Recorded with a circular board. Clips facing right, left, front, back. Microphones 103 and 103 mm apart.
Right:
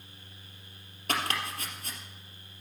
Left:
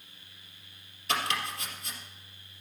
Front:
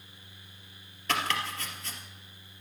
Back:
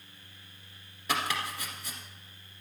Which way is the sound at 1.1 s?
105° right.